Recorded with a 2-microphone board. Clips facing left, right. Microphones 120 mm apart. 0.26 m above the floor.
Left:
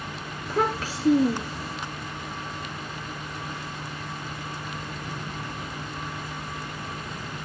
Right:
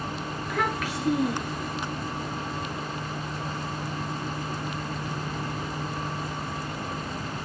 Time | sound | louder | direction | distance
0.5 | a child speaking | left 4 dB | 30° left (ahead or behind) | 2 m